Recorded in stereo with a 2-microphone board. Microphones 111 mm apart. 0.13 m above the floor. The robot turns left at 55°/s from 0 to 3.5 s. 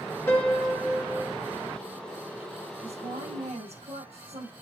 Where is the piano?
30° left, 2 m; by 1.3 s 30° right, 2 m.